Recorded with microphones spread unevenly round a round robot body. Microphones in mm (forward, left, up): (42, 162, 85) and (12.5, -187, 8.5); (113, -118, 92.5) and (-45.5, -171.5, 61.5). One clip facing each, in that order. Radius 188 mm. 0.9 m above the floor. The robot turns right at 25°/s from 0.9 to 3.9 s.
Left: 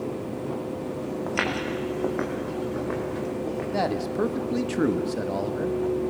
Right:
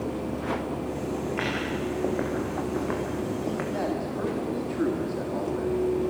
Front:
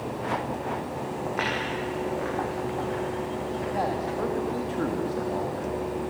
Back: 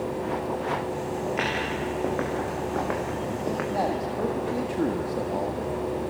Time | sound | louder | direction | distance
1.3 | footsteps | left 1 dB, even | 110° left | 3.5 m
3.7 | a man speaking | left 2 dB, back 1 dB | 120° left | 1.4 m